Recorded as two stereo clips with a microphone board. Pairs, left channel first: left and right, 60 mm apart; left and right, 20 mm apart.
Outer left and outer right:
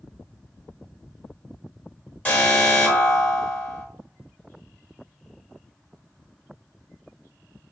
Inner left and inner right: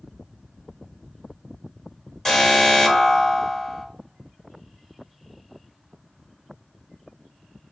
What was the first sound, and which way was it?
An alarm, 25° left (ahead or behind).